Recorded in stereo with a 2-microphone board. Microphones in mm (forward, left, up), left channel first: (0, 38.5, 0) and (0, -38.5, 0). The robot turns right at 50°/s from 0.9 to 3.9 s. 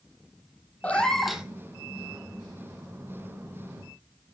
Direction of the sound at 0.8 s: 15° left (ahead or behind).